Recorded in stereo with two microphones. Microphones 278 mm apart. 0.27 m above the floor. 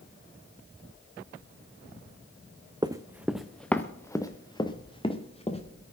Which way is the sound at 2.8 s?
15° right (ahead or behind).